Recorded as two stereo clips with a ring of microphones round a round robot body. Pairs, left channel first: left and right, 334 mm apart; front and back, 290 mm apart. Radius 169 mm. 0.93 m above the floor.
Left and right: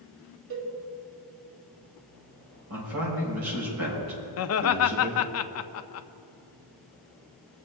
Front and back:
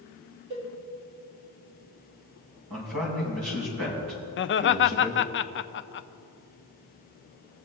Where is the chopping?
I don't hear chopping.